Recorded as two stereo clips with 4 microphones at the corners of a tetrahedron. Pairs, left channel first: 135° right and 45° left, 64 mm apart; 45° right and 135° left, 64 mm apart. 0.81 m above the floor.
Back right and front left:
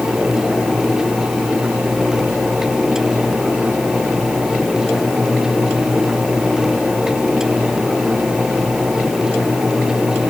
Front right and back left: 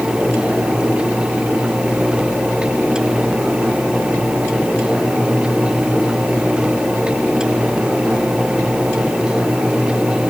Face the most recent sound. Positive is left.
No sound to turn to.